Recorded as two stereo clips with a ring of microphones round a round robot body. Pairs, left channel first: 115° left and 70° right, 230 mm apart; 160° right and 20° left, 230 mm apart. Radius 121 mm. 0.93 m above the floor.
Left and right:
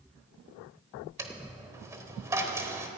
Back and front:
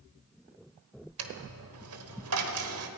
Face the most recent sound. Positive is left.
turn(degrees=10)